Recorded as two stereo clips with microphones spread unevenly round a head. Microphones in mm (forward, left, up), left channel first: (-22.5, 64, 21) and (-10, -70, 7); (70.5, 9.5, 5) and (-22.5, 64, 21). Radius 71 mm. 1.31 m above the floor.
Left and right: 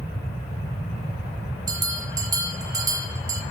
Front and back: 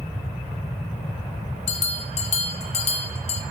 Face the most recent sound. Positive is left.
turn(degrees=-20)